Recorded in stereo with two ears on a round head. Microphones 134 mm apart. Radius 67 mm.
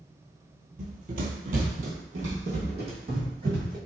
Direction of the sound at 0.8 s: 50° right (ahead or behind).